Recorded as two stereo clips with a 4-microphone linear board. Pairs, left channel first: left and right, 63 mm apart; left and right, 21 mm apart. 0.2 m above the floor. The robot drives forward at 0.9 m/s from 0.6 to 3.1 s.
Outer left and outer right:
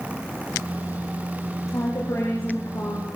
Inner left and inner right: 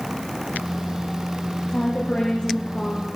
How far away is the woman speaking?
About 7 m.